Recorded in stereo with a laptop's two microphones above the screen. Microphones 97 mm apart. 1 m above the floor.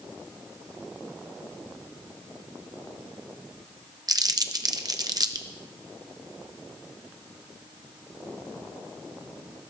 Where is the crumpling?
40° right (ahead or behind), 0.9 m.